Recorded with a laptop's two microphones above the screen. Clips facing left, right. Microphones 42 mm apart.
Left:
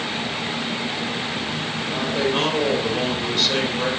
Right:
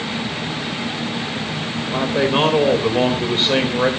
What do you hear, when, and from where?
1.9 s a man speaking: 30° right (ahead or behind), 4 m